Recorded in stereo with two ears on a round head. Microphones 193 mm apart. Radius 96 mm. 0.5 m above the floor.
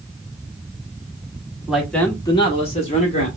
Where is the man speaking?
5° right (ahead or behind), 1.2 m; by 3.3 s 35° left (ahead or behind), 1.7 m.